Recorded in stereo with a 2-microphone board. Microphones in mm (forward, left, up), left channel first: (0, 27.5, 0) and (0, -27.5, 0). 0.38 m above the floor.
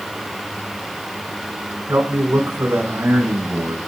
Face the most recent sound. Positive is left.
turn(degrees=-55)  # may be behind; listen again after turning